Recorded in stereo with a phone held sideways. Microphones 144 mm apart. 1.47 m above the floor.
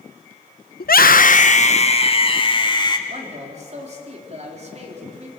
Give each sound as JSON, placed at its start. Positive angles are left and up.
{"t": 0.8, "sound": "a scream", "side_deg": 80, "distance_m": 1.0}
{"t": 3.1, "sound": "a man speaking", "side_deg": -50, "distance_m": 4.0}